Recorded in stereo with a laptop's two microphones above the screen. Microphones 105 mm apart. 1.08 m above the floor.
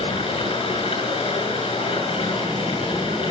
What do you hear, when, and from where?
0.0 s running water: 75° left (ahead or behind), 6 m